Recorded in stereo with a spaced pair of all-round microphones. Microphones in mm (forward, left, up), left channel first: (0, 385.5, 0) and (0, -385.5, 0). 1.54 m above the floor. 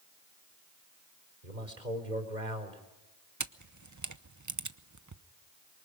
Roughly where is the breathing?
I don't hear breathing.